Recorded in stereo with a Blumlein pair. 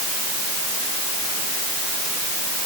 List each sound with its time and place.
Only background noise.